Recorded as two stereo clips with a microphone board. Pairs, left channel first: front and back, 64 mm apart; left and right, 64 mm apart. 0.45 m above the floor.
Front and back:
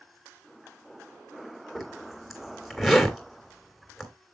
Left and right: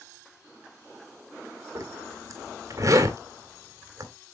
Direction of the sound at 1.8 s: 90° right.